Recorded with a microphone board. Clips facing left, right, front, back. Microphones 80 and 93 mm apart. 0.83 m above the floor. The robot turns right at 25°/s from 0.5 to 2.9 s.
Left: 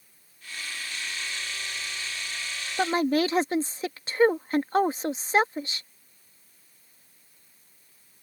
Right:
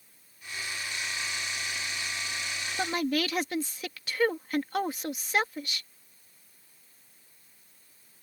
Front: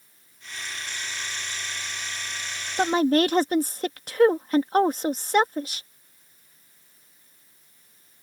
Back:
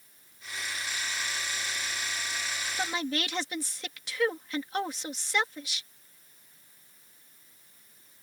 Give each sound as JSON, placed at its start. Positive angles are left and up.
{"t": 2.8, "sound": "a woman speaking", "azimuth_deg": 30}